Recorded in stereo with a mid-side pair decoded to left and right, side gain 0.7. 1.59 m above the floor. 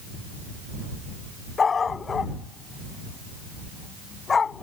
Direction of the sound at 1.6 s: 25° left.